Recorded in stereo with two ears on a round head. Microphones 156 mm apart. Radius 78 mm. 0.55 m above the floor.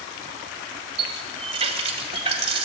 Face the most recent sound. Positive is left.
turn(degrees=-35)  # may be behind; listen again after turning